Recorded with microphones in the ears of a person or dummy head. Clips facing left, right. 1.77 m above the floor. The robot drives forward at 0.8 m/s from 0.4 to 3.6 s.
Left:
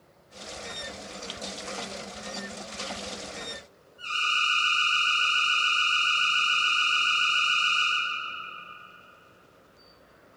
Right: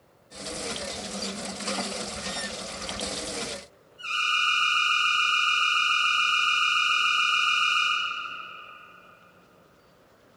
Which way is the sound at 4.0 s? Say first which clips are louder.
Right 1 dB; 5° right (ahead or behind).